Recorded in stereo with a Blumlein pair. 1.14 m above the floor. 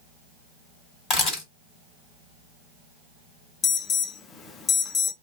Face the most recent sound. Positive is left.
turn(degrees=25)